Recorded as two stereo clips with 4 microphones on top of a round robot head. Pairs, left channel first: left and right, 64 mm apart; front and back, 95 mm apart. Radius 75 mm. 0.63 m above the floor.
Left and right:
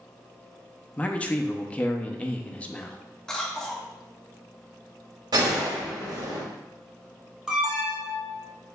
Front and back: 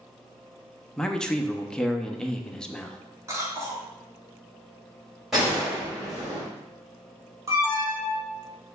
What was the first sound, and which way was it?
A man speaking, 70° left.